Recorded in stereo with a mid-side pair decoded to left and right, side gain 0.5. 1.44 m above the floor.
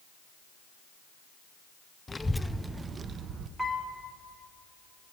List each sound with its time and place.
2.1 s a child speaking: 20° left, 0.6 m; by 3.5 s 60° right, 0.8 m
3.6 s a piano: 10° right, 2.5 m